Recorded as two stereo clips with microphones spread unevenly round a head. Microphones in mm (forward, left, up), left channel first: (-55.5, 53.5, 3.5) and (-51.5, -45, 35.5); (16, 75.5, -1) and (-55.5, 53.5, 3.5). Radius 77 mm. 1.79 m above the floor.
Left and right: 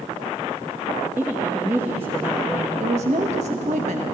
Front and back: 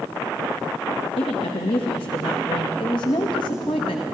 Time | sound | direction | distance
1.2 | a woman speaking | 10° right | 1.0 m
2.8 | a woman speaking | 40° right | 0.9 m